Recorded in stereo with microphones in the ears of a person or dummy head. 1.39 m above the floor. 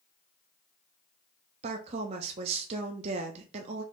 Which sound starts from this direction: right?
A woman speaking, at 1.6 s.